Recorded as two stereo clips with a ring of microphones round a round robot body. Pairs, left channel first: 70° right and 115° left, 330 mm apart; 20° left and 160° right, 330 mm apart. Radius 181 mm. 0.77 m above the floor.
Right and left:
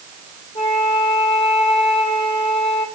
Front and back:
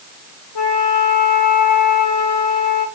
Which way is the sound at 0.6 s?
5° left.